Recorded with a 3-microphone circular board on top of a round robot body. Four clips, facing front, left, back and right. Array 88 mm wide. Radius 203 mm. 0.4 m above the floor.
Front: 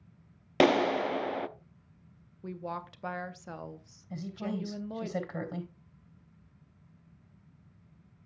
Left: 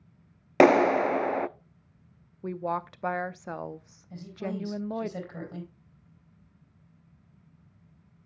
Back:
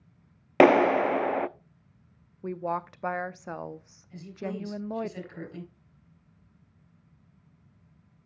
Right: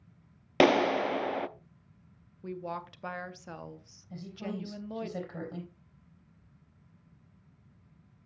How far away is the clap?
About 0.6 m.